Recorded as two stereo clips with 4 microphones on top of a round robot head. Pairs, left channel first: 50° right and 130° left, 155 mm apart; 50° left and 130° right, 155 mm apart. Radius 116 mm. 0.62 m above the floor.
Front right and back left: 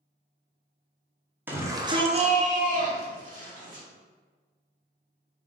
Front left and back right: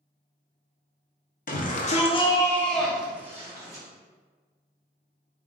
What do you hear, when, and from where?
1.5 s a shout: 55° left, 1.1 m; by 3.8 s 165° left, 1.7 m